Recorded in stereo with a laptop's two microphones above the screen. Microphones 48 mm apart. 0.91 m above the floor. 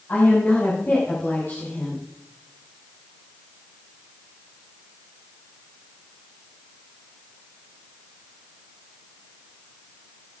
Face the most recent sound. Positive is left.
turn(degrees=55)  # may be behind; listen again after turning